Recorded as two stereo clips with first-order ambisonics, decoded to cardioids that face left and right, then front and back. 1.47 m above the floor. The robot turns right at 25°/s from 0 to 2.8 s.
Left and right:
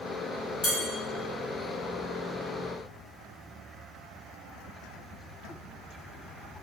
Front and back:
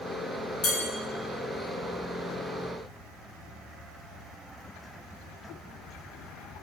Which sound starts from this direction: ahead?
Dishes clattering, at 0.6 s.